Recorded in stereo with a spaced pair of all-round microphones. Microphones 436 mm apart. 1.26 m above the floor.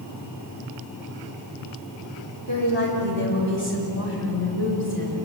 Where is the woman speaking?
75° right (ahead or behind), 7 m; by 5.2 s 50° right (ahead or behind), 8 m.